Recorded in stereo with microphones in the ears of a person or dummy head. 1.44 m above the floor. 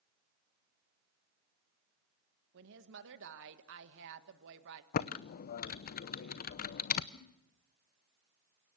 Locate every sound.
2.5 s a woman speaking: 65° right (ahead or behind), 1.7 m
4.9 s typing on a keyboard: 50° left (ahead or behind), 0.7 m
7.1 s a giggle: 75° left (ahead or behind), 4.5 m